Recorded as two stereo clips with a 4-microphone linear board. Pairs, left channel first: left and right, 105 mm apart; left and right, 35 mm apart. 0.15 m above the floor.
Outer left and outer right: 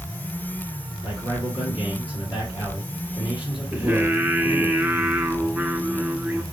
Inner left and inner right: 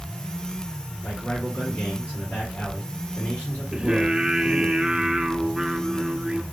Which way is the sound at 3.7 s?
15° right (ahead or behind).